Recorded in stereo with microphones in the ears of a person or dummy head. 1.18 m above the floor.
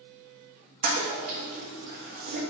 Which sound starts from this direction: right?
A toilet flushing, at 0.8 s.